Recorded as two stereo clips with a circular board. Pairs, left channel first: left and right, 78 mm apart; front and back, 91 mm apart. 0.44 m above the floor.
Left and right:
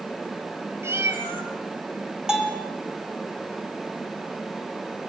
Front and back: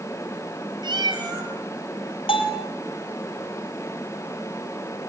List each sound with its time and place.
0.8 s a cat meowing: 145° right, 4 m
2.3 s a bell: 10° right, 5 m